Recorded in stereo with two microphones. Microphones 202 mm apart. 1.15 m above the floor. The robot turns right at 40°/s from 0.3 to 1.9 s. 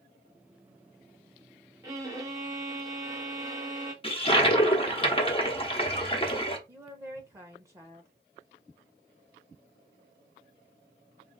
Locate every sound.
1.8 s a violin: 20° right (ahead or behind), 0.9 m; by 3.9 s 15° right (ahead or behind), 0.9 m
4.0 s a toilet flushing: 25° left (ahead or behind), 0.8 m
6.7 s a woman speaking: 15° right (ahead or behind), 0.5 m